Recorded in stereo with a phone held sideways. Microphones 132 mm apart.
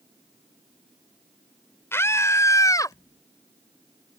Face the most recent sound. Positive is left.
turn(degrees=30)  # may be behind; listen again after turning